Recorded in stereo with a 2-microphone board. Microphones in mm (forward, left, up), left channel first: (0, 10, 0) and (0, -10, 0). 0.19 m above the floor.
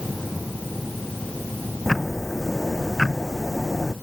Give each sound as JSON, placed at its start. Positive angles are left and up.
{"t": 1.9, "sound": "ticking", "side_deg": 10}